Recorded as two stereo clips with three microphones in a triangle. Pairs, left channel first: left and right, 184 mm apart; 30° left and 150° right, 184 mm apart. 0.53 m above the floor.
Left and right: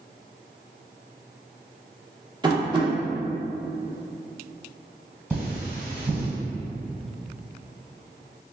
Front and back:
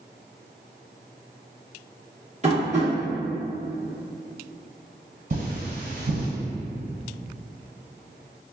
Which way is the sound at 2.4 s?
140° right.